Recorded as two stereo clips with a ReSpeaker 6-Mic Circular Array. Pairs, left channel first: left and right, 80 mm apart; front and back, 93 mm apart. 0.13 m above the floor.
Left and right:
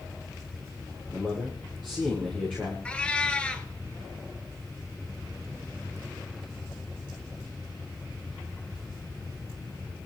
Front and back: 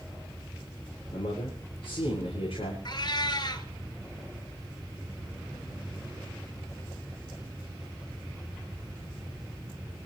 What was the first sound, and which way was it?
A man speaking, 15° left.